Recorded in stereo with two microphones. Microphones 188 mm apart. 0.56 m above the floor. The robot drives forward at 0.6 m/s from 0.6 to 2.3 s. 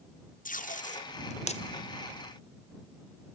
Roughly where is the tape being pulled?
Left.